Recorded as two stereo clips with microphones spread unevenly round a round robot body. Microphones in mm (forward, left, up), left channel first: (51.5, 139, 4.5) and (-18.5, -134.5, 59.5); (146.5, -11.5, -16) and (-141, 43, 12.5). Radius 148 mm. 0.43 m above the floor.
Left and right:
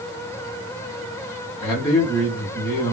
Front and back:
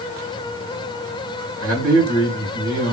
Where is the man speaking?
155° left, 1.9 m.